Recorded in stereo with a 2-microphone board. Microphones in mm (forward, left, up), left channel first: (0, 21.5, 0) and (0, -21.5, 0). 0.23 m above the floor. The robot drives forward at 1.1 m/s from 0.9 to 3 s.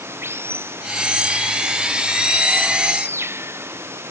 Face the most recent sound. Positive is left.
turn(degrees=-75)  # may be behind; listen again after turning